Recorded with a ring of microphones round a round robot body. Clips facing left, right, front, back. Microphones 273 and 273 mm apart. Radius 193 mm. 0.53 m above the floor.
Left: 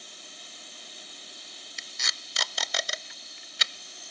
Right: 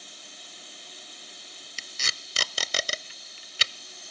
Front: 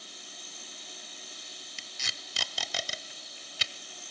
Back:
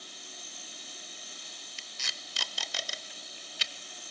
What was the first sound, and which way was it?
Tape being pulled, 25° right.